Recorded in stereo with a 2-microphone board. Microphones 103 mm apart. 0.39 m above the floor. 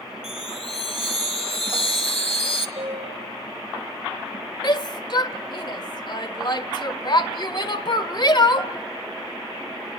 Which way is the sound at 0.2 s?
70° left (ahead or behind).